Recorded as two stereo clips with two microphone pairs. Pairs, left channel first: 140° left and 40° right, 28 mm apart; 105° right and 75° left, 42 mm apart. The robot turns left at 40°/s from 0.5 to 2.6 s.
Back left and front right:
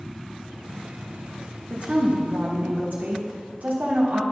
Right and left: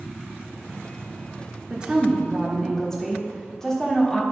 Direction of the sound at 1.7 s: 5° left.